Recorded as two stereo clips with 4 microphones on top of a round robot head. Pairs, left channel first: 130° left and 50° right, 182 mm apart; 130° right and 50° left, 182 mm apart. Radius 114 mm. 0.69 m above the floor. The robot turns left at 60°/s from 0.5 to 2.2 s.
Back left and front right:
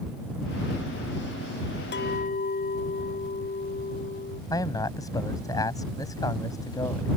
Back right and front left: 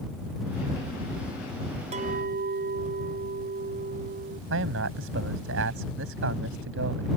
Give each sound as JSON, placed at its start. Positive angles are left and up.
{"t": 1.9, "sound": "a clink", "azimuth_deg": 105}
{"t": 4.5, "sound": "a man speaking", "azimuth_deg": 60}